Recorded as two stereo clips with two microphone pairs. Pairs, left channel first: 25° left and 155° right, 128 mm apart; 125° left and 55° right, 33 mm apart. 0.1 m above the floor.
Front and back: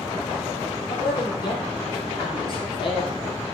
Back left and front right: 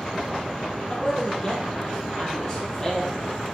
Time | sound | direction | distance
0.9 | a man speaking | 65° left | 3.5 m